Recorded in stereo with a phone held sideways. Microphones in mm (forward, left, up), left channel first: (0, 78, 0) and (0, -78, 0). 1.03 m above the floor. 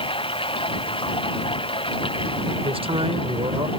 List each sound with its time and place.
0.0 s running water: 35° left (ahead or behind)
2.6 s a man speaking: 40° right (ahead or behind)